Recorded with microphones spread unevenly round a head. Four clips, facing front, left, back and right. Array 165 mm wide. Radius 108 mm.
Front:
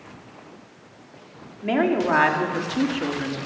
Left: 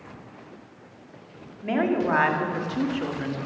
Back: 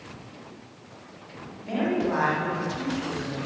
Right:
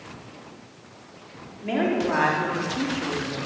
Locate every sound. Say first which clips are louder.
1.6 s a woman speaking: even, front 5 dB; 5° right, 4.5 m; by 3.4 s 15° left, 3.5 m